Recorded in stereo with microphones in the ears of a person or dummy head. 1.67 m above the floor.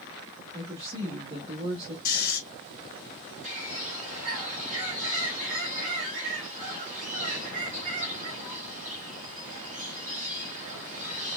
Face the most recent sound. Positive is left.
turn(degrees=-45)  # may be behind; listen again after turning